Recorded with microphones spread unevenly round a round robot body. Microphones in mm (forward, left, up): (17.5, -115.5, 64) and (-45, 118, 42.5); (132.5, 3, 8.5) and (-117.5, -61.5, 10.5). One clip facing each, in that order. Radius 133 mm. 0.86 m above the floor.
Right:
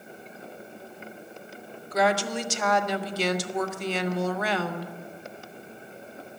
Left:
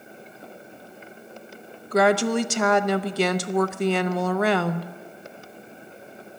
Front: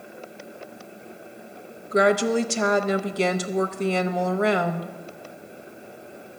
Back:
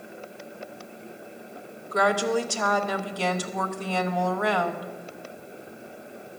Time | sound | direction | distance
1.9 | a woman speaking | 80° left | 0.6 m